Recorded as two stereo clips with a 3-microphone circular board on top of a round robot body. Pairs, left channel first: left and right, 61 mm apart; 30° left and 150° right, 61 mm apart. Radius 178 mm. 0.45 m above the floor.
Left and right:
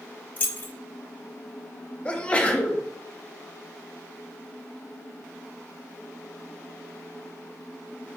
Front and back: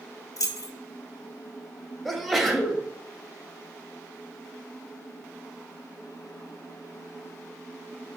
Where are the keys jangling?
35° left, 0.8 m.